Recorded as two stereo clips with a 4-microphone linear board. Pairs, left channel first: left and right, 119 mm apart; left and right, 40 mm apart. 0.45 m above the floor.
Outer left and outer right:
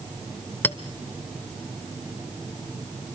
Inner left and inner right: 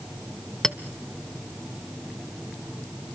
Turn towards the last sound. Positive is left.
turn(degrees=20)  # may be behind; listen again after turning